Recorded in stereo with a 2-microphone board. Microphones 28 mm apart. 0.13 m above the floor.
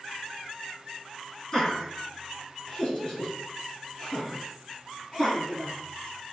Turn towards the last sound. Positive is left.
turn(degrees=10)  # may be behind; listen again after turning